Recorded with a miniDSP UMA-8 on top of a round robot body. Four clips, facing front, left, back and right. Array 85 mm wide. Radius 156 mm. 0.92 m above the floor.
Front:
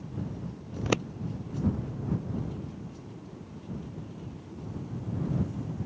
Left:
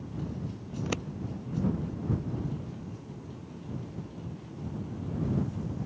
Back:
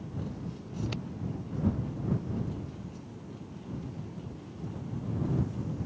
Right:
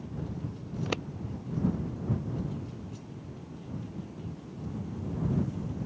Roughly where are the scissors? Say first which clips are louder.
Even, front 8 dB; ahead.